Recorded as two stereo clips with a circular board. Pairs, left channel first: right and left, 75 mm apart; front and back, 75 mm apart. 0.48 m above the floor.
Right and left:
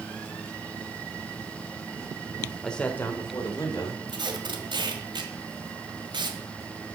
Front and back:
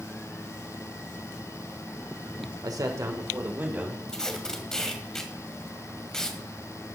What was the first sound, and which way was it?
A man speaking, 170° right.